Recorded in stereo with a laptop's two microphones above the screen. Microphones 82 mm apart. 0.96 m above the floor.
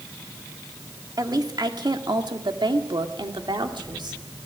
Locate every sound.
1.2 s a woman speaking: 55° right (ahead or behind), 2.5 m; by 4.2 s 75° right (ahead or behind), 3 m